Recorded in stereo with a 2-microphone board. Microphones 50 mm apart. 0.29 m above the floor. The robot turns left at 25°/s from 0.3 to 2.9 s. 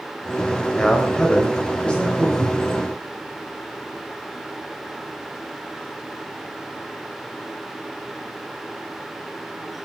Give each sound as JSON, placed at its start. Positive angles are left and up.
{"t": 0.8, "sound": "a man speaking", "side_deg": 20, "distance_m": 1.2}
{"t": 2.4, "sound": "a cupboard door", "side_deg": 10, "distance_m": 0.8}